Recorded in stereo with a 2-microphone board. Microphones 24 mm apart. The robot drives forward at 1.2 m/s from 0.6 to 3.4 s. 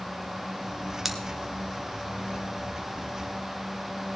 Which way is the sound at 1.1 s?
15° right (ahead or behind).